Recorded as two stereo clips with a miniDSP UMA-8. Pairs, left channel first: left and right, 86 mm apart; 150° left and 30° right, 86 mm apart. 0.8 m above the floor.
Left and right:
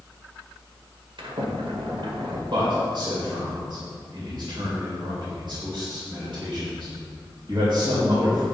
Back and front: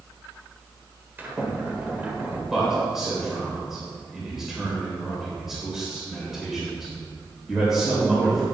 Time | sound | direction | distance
1.2 | a sliding door | 100° right | 1.6 m
2.5 | a man speaking | 115° right | 3.5 m